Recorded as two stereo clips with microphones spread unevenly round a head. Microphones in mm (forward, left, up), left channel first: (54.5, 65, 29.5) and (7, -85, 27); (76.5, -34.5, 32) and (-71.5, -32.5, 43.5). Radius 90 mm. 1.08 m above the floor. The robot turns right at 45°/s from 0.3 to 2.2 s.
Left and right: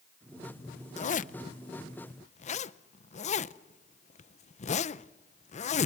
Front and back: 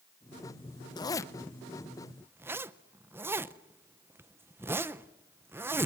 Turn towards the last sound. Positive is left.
turn(degrees=105)